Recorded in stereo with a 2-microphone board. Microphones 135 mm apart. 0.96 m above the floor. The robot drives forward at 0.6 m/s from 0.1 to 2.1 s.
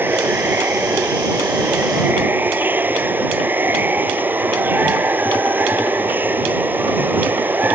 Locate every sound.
0.0 s running water: 15° right (ahead or behind)